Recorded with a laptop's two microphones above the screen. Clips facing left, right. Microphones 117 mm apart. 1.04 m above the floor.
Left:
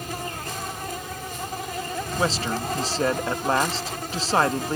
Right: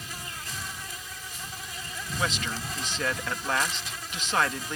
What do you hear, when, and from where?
0.0 s an insect: 55° left (ahead or behind)
2.2 s a man speaking: 35° left (ahead or behind)